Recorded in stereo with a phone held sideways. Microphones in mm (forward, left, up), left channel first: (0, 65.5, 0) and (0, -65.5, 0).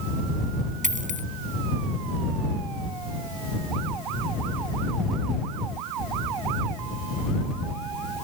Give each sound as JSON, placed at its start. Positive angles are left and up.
{"t": 0.8, "sound": "a dropped coin", "side_deg": -80}